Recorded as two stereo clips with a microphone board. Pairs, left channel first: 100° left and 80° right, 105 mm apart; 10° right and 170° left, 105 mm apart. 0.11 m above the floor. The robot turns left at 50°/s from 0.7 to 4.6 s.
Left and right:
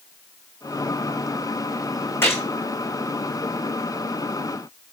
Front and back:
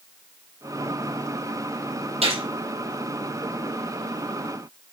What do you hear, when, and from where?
2.2 s a gunshot: 170° left, 4 m; by 2.4 s 160° left, 4 m